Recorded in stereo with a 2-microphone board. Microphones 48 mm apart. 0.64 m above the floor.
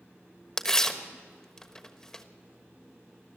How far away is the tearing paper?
About 1.3 m.